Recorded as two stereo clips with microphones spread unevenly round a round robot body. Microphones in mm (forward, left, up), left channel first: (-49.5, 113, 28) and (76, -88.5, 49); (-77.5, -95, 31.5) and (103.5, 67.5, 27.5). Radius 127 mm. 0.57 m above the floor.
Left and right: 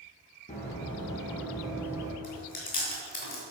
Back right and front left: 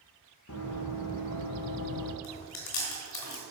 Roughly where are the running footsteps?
Behind.